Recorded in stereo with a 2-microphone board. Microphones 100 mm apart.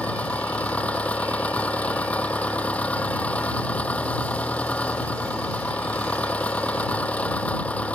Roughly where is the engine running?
Centre.